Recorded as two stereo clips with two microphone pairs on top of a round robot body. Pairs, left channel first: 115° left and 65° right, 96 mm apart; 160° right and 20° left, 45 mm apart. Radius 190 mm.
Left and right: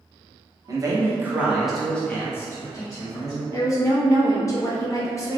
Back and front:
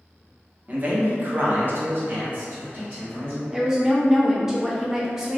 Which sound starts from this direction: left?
A woman speaking, at 3.5 s.